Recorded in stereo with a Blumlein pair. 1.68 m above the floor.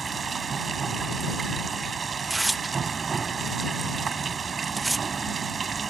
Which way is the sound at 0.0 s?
20° right.